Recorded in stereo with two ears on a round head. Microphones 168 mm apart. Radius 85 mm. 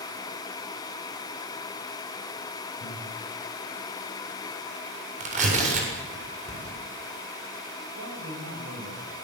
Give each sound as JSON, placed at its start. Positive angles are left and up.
{"t": 2.8, "sound": "breathing", "side_deg": 80, "distance_m": 5.5}
{"t": 5.2, "sound": "tearing paper", "side_deg": -40, "distance_m": 7.5}
{"t": 7.9, "sound": "a man speaking", "side_deg": -85, "distance_m": 8.5}